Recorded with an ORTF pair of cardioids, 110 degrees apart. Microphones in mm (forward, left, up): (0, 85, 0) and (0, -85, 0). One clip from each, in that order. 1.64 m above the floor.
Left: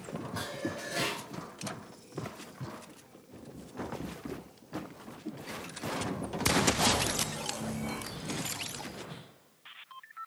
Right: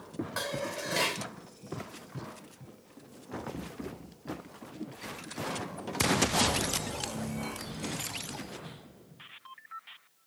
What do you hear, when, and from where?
0.4 s dishes clattering: 50° right, 4 m